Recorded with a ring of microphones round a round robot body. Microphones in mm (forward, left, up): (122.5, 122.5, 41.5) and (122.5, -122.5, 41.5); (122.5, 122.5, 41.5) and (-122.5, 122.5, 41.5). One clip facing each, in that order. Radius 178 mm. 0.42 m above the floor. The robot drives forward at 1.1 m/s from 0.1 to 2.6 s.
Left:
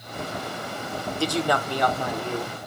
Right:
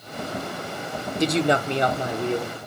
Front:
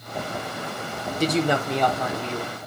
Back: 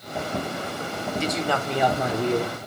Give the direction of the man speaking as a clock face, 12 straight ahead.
1 o'clock.